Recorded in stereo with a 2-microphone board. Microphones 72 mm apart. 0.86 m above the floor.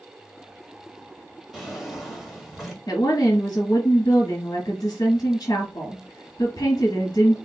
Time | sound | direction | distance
1.5 | a drawer | 5° right (ahead or behind) | 1.3 m
2.9 | a woman speaking | 60° left (ahead or behind) | 1.4 m